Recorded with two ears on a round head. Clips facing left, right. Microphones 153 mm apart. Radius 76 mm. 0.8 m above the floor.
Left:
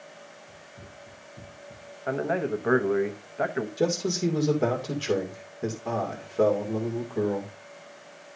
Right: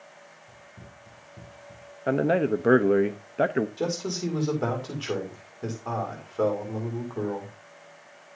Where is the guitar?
No guitar in this recording.